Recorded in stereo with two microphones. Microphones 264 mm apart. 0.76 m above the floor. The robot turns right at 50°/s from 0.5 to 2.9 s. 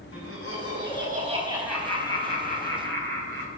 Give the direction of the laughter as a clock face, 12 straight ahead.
2 o'clock.